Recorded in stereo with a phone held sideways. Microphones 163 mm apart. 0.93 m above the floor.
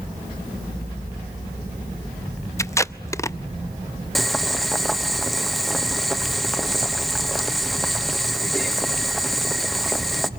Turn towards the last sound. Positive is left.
turn(degrees=0)  # may be behind; listen again after turning